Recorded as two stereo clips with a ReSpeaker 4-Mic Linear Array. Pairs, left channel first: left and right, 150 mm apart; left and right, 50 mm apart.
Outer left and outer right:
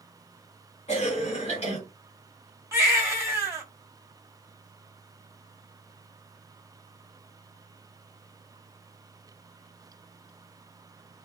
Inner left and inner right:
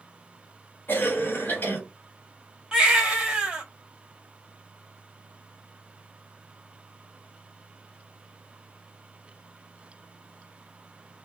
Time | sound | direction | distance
0.9 | a cough | 45° left (ahead or behind) | 1.5 m
2.7 | a baby crying | 15° right (ahead or behind) | 1.4 m